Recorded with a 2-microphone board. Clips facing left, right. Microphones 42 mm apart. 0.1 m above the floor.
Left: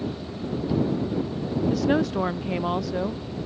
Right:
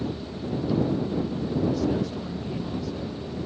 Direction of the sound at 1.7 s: 85° left.